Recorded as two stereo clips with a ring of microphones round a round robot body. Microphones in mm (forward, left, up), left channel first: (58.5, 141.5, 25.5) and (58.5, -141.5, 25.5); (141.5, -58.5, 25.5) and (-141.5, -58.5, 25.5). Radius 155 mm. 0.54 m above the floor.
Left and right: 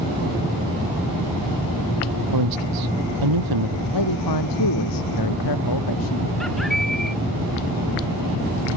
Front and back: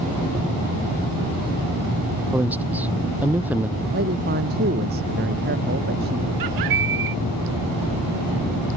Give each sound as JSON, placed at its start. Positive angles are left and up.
{"t": 2.3, "sound": "a man speaking", "azimuth_deg": -95}
{"t": 3.9, "sound": "a man speaking", "azimuth_deg": 120}
{"t": 6.4, "sound": "a bird", "azimuth_deg": 180}